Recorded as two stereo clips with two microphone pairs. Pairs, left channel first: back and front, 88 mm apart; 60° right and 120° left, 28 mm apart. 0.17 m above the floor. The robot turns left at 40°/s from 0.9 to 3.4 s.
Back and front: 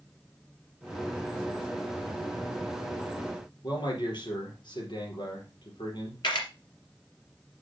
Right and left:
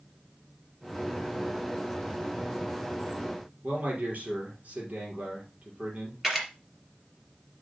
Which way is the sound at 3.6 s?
150° left.